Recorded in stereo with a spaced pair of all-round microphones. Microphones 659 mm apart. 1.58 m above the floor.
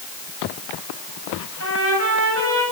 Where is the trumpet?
20° right (ahead or behind), 10 m.